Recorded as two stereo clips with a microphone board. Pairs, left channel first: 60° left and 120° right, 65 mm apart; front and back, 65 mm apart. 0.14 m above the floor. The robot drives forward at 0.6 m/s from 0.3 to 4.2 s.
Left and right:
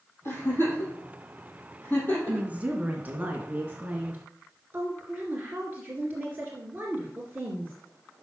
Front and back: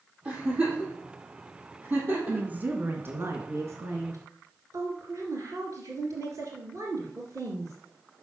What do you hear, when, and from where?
0.2 s a giggle: 105° left, 4 m; by 2.5 s 120° left, 4.5 m
2.3 s a woman speaking: 150° right, 1.2 m; by 7.7 s 170° right, 1.9 m